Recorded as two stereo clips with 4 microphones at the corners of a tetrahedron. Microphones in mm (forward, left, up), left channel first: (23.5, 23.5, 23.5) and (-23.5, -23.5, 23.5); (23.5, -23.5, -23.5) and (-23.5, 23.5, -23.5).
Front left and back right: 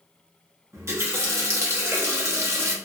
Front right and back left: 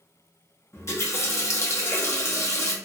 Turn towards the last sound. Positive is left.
turn(degrees=-90)